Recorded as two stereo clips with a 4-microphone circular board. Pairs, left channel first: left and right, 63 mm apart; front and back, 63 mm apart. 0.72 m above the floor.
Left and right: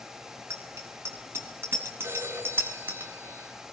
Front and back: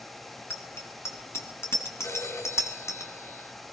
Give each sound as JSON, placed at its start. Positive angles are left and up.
{"t": 0.5, "sound": "a bicycle bell", "azimuth_deg": -50, "distance_m": 6.0}
{"t": 2.0, "sound": "a phone ringing", "azimuth_deg": -35, "distance_m": 5.0}